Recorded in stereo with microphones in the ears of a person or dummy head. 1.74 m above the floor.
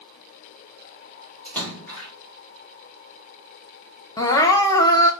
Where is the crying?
20° left (ahead or behind), 0.5 m.